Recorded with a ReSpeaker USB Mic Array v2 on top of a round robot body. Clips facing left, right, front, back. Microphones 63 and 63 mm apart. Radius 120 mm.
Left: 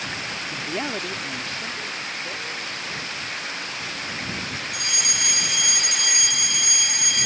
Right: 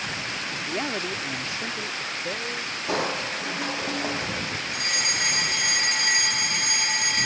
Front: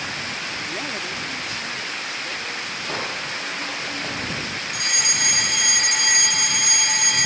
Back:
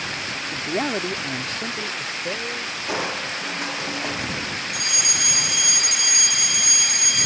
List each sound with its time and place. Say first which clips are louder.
0.5 s a man speaking: left 1 dB, back 4 dB; 155° left; by 2.8 s 135° right
2.9 s crushing: right 5 dB, back 3 dB; 100° right
4.7 s a fire alarm: right 1 dB, front 2 dB; 40° right